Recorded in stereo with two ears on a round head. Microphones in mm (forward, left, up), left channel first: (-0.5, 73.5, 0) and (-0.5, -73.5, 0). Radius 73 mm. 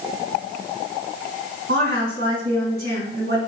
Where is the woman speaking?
65° right (ahead or behind), 4 m.